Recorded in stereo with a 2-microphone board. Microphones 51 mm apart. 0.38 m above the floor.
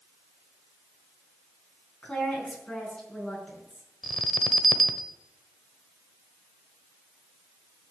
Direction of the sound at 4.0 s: Centre (ahead or behind).